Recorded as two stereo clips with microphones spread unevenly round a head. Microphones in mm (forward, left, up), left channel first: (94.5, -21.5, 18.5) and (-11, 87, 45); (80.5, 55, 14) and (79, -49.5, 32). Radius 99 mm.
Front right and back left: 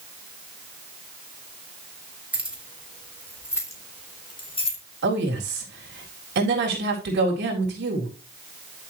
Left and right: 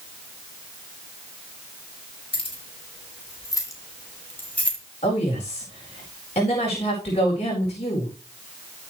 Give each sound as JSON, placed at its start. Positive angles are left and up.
{"t": 2.3, "sound": "keys jangling", "azimuth_deg": 55, "distance_m": 4.0}
{"t": 5.0, "sound": "a woman speaking", "azimuth_deg": 140, "distance_m": 4.0}